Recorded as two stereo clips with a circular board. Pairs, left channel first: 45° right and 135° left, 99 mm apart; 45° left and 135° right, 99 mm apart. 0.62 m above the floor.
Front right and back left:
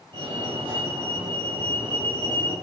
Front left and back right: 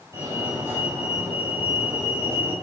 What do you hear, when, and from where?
0.1 s a fire alarm: 165° left, 7 m